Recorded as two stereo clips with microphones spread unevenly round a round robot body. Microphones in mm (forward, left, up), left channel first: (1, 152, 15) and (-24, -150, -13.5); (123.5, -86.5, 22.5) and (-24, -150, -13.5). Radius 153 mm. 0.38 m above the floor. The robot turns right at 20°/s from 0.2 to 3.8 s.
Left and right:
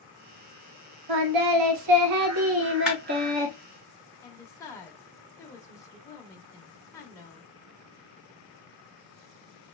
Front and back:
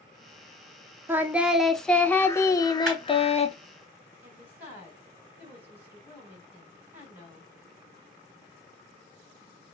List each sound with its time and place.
1.1 s singing: 75° right, 0.5 m; by 3.5 s 25° right, 0.5 m
2.9 s a clap: straight behind, 1.7 m; by 3.0 s 175° right, 1.7 m
4.2 s a woman speaking: 165° left, 0.8 m